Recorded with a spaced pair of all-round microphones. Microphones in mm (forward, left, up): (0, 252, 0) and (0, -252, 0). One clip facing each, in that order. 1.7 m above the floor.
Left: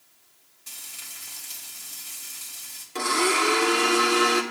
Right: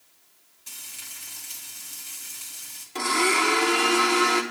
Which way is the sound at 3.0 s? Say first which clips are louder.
Even; 10° right (ahead or behind).